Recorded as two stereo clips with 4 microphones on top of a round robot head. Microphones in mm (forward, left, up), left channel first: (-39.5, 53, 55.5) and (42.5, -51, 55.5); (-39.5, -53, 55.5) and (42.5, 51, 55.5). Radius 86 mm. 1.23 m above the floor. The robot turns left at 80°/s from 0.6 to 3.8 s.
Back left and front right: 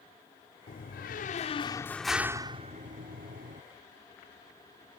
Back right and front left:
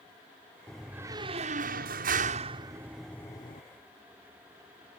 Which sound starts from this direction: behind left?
A door slam, at 0.7 s.